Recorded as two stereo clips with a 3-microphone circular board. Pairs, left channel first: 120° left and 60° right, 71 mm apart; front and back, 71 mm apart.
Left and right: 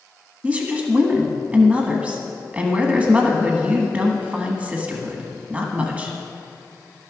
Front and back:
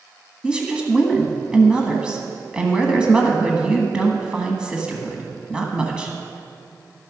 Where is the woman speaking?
115° right, 1.3 m.